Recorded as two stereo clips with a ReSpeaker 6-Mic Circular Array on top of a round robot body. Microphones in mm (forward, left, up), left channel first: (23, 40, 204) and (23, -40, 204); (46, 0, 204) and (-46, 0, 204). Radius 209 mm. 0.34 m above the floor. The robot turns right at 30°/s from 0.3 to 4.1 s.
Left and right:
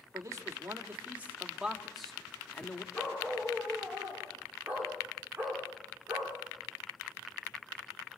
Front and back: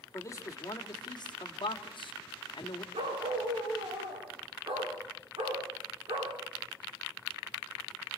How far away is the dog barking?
About 9.5 m.